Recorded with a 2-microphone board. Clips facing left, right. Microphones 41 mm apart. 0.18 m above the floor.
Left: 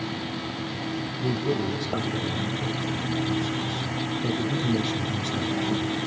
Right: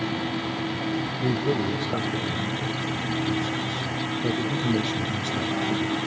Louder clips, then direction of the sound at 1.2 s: Right 1 dB; 35° right (ahead or behind).